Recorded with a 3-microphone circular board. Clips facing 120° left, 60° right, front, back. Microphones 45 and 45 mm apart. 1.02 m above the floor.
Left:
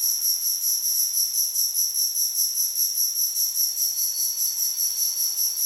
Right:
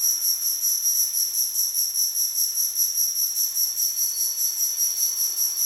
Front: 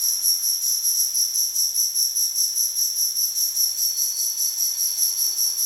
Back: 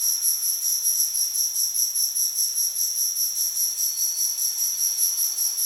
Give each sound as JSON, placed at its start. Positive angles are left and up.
{"t": 0.0, "sound": "an insect", "azimuth_deg": -105, "distance_m": 1.8}